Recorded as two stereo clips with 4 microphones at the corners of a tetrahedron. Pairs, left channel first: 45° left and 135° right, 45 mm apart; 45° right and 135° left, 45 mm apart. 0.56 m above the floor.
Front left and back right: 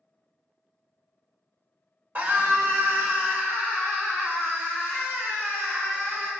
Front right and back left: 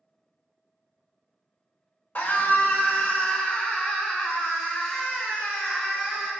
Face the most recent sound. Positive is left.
turn(degrees=-130)